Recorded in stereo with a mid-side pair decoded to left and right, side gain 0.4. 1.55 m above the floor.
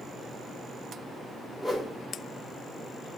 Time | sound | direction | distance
1.6 | a whoosh | 25° left | 2.5 m